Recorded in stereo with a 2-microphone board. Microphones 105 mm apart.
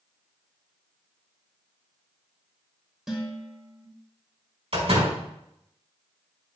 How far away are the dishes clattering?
About 3 m.